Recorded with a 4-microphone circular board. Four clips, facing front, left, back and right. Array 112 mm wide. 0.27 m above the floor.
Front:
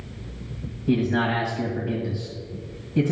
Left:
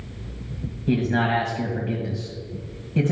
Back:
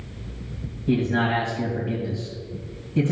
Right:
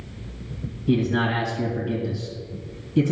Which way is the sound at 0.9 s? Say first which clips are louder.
Even, even; 80° left.